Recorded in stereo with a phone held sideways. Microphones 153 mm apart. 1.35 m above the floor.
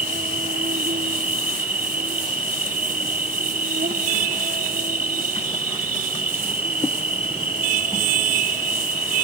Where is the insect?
75° right (ahead or behind).